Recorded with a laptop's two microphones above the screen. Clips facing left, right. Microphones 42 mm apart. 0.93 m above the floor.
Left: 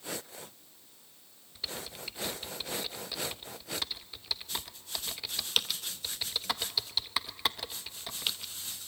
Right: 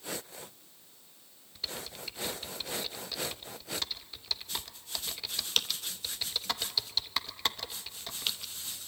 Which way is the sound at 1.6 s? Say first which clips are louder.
Even; 5° left (ahead or behind).